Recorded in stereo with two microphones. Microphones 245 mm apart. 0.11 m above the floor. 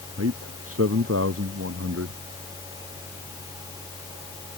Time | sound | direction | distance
0.2 | a man speaking | 70° right (ahead or behind) | ?